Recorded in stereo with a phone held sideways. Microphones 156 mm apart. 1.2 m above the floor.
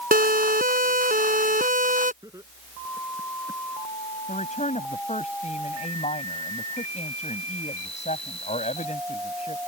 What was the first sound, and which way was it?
A siren, 70° right (ahead or behind).